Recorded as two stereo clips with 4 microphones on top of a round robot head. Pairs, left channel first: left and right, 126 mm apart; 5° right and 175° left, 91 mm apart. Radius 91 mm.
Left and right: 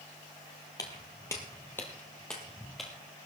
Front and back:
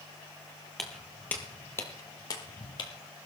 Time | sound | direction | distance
0.8 | footsteps | 75° left | 1.3 m